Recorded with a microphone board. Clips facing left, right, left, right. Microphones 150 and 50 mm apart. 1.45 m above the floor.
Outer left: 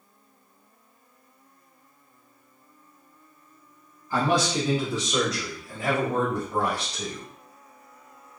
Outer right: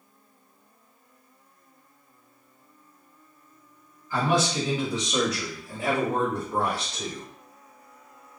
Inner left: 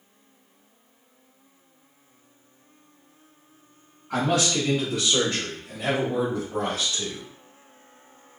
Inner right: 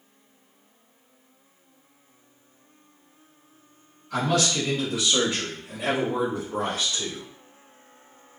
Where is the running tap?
I don't hear a running tap.